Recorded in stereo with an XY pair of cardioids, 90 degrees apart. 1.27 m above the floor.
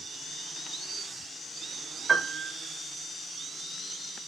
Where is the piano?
35° right, 3 m.